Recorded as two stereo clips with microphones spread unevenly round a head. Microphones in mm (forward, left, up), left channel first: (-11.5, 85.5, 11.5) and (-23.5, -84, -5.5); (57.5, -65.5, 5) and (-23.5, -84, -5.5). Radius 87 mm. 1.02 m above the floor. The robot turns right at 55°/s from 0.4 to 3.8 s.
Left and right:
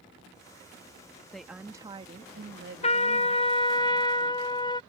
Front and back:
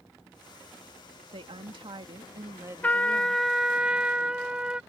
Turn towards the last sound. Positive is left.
turn(degrees=135)